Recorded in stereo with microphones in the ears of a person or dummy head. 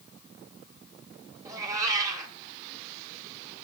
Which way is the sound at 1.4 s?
20° right (ahead or behind).